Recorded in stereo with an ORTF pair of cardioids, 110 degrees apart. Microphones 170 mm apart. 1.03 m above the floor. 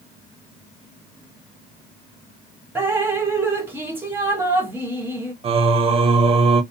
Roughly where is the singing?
Ahead right.